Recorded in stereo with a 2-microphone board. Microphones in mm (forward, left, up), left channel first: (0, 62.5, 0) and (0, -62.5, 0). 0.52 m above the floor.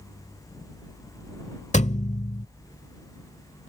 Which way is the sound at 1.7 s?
70° left (ahead or behind).